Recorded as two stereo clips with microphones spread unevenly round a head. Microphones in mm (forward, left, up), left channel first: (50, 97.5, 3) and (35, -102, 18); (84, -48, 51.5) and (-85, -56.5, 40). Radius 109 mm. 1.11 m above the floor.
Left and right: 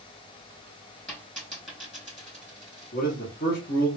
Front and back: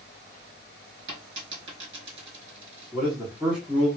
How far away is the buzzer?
No buzzer in this recording.